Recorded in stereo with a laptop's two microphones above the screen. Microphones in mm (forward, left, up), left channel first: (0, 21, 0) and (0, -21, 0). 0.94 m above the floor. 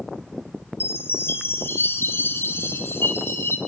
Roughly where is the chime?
Left.